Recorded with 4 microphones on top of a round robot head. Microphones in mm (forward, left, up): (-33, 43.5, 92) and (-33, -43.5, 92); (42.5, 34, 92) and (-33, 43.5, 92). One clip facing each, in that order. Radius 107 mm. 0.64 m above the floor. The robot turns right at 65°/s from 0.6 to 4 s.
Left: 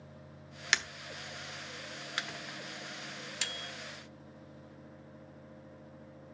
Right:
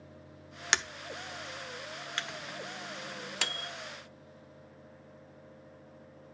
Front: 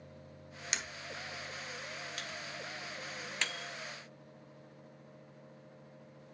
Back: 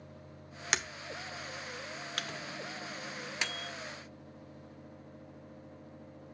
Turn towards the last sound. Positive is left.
turn(degrees=-75)